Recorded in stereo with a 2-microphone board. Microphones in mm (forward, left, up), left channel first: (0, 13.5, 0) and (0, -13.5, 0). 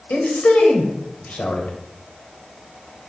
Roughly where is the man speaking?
Left.